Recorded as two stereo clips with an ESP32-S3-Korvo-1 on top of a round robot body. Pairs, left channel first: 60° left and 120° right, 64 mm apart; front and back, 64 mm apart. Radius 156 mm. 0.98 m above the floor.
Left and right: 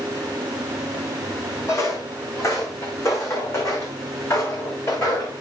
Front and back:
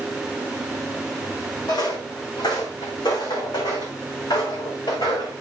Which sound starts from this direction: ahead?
Footsteps, at 1.7 s.